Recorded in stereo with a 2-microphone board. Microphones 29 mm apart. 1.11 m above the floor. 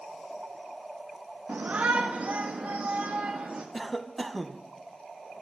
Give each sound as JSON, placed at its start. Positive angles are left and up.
{"t": 1.5, "sound": "a shout", "side_deg": -80, "distance_m": 1.1}
{"t": 3.7, "sound": "a cough", "side_deg": 5, "distance_m": 1.0}